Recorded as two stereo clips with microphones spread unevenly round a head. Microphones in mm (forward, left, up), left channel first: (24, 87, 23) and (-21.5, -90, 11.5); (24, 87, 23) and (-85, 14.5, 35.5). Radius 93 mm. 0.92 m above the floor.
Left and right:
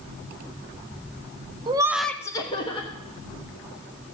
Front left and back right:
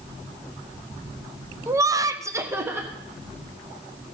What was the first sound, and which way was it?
Laughter, 85° right.